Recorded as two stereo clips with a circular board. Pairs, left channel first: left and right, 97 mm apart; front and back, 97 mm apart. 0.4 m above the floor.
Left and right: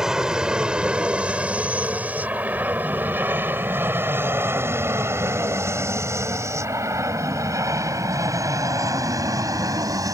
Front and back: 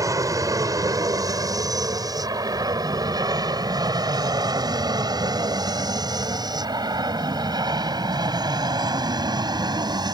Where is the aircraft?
170° right; by 10.2 s 140° right.